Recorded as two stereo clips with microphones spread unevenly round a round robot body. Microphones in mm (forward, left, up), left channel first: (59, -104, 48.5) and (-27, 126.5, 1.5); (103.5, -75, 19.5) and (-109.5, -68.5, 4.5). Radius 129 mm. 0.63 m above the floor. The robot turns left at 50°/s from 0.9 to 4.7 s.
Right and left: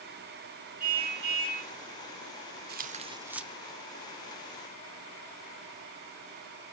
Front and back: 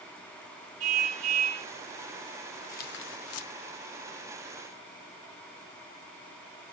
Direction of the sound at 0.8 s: 170° left.